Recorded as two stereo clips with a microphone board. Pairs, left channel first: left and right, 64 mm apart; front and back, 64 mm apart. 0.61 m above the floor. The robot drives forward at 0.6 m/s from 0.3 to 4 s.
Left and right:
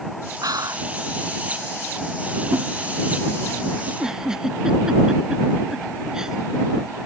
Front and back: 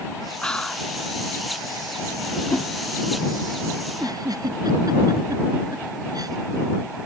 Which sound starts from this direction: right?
Whispering, at 0.4 s.